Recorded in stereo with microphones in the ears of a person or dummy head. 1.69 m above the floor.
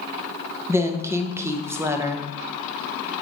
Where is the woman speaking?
15° right (ahead or behind), 0.7 m.